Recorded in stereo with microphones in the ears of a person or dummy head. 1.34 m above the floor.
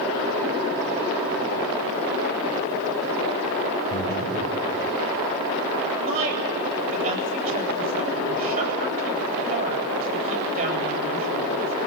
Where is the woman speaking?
50° right (ahead or behind), 9.5 m.